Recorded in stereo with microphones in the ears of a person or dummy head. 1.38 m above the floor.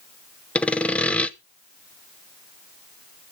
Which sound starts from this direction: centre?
Sawing, at 0.6 s.